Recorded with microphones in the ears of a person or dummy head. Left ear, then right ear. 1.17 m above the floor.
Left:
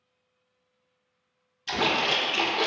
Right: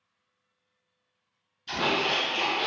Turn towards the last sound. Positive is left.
turn(degrees=20)  # may be behind; listen again after turning